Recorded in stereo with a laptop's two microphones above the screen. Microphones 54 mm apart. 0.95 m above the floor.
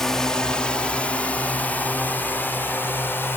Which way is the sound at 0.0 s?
10° left (ahead or behind).